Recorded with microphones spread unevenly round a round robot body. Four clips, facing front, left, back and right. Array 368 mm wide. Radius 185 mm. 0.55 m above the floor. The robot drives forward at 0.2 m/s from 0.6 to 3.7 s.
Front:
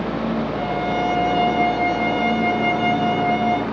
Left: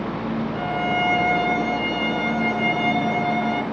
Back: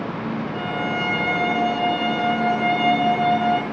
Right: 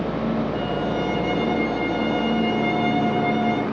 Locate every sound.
0.5 s a violin: 105° left, 3 m; by 3.6 s 120° left, 3 m